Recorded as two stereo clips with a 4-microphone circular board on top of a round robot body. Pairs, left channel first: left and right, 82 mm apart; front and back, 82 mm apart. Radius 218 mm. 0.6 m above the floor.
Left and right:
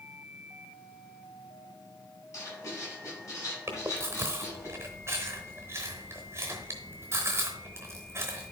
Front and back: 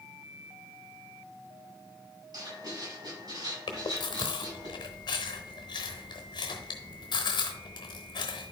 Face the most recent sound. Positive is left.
turn(degrees=-30)